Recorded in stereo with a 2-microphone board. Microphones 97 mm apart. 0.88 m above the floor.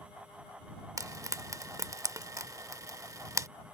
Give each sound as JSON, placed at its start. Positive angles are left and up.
{"t": 1.0, "sound": "frying", "side_deg": -35}